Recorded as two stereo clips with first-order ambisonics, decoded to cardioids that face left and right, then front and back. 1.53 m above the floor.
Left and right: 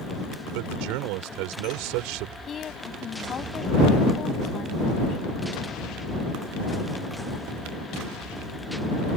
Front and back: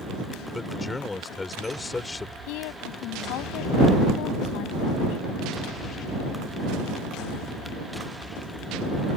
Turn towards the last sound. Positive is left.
turn(degrees=25)